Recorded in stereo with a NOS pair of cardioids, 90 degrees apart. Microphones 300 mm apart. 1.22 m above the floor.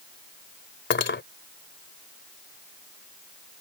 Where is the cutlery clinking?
40° left.